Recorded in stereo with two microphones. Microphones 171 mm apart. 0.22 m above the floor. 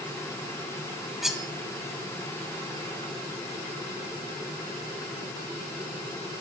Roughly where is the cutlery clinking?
Centre.